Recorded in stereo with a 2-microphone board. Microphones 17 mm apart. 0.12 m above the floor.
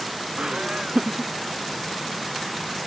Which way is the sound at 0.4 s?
65° right (ahead or behind).